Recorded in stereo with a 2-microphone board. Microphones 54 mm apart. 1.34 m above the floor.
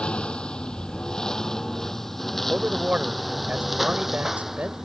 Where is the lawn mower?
20° left (ahead or behind); by 4.8 s 5° right (ahead or behind).